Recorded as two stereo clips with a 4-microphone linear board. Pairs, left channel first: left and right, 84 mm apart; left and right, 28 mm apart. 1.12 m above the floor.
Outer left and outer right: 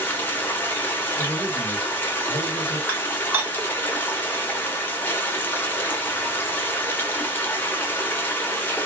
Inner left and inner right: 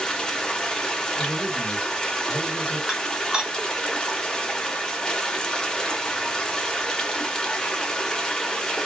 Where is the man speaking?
25° left (ahead or behind), 1.2 m.